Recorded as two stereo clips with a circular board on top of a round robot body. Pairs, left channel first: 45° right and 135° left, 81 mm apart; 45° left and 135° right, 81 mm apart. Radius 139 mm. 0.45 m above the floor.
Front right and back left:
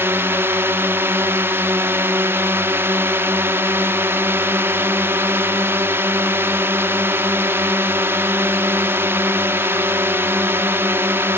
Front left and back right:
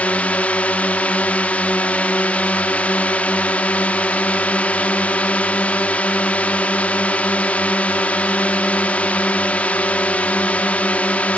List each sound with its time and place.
0.0 s a drone: 105° left